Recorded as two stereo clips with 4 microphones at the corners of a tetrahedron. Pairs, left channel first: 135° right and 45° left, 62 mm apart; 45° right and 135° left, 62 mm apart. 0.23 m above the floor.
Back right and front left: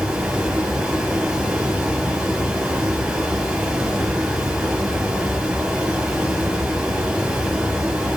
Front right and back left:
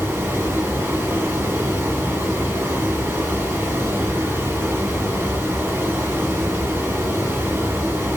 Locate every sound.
0.0 s running water: 115° left, 0.8 m